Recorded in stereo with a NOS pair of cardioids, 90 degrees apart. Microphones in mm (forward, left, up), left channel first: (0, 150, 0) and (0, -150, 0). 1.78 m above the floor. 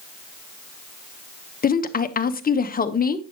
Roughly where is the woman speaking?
Ahead left.